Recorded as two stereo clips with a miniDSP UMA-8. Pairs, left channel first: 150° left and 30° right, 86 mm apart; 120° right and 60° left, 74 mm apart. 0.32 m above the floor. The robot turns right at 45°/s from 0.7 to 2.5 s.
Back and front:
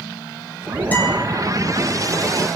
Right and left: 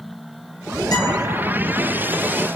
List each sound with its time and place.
0.9 s a guitar: 145° right, 4.5 m; by 1.2 s 125° right, 4.5 m